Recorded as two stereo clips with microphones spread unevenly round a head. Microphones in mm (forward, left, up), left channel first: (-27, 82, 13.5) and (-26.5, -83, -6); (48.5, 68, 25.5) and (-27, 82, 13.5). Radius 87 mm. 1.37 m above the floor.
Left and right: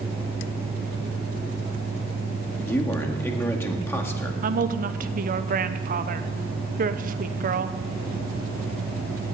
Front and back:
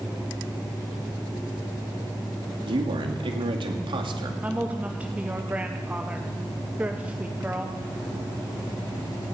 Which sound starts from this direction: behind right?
A woman speaking, at 4.4 s.